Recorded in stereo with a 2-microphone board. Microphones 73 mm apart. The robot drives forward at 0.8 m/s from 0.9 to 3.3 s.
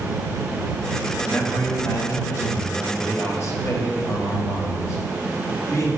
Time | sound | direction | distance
1.2 | a man speaking | 30° left (ahead or behind) | 2.5 m